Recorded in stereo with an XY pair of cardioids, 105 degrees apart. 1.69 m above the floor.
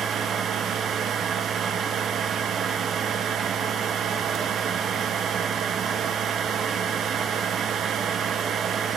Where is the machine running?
60° right, 1.2 m.